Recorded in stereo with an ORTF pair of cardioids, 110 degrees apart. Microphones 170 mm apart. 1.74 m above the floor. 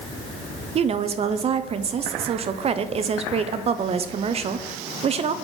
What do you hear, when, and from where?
0.8 s a woman speaking: 35° right, 0.6 m